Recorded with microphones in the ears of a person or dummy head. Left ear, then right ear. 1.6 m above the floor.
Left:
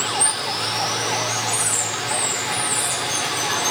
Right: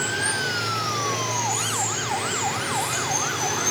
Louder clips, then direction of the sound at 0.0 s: Left 2 dB; 20° left (ahead or behind).